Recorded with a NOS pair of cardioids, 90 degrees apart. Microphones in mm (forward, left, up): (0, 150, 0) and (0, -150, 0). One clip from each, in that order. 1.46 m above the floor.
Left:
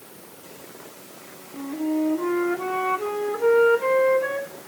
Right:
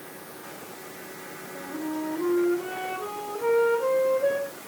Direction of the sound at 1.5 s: 65° left.